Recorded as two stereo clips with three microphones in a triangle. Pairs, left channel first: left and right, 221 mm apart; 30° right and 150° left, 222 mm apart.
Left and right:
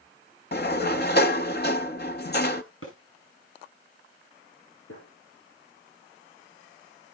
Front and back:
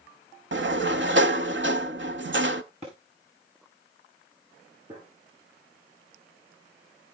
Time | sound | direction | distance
0.5 | a sliding door | 125° left | 0.7 m
2.8 | a thud | 90° left | 7 m
4.9 | a gunshot | 85° left | 8 m